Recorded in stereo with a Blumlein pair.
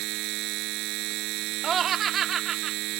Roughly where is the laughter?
Ahead.